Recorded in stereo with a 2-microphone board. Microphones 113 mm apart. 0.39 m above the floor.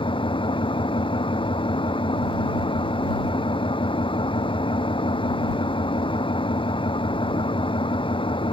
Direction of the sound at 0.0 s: 50° left (ahead or behind).